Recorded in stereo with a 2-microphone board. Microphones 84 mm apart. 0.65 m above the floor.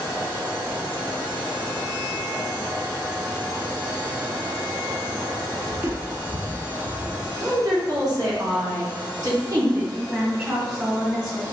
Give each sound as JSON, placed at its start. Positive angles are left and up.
{"t": 5.7, "sound": "footsteps", "side_deg": -15, "distance_m": 0.9}
{"t": 7.4, "sound": "a woman speaking", "side_deg": -45, "distance_m": 1.6}
{"t": 10.1, "sound": "a woman speaking", "side_deg": -30, "distance_m": 1.9}